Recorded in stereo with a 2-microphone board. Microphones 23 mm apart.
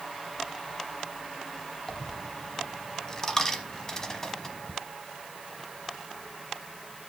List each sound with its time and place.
1.9 s a dropped coin: 25° left (ahead or behind), 0.8 m